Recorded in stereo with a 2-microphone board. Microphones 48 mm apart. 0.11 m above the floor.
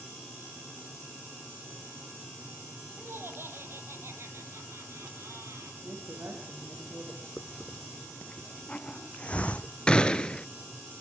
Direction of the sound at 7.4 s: 25° left (ahead or behind).